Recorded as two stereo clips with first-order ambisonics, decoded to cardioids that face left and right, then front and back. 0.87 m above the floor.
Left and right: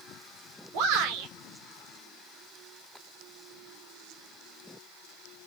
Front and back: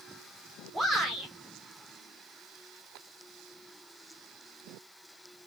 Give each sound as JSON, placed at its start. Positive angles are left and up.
{"t": 0.7, "sound": "a shout", "azimuth_deg": -100, "distance_m": 2.5}